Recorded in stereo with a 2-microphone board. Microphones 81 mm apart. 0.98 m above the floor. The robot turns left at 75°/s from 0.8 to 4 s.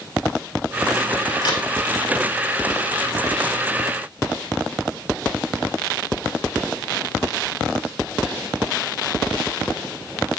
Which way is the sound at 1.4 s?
60° left (ahead or behind).